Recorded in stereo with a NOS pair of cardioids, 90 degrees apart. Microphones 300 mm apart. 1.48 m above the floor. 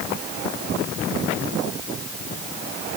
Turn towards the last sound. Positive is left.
No sound to turn to.